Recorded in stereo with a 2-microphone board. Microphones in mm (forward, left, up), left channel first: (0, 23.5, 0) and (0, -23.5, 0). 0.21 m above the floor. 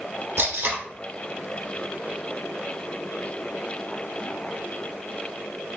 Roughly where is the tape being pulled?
Right.